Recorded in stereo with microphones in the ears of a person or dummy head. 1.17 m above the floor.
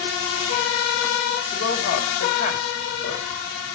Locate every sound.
1.5 s a woman speaking: 45° left (ahead or behind), 3 m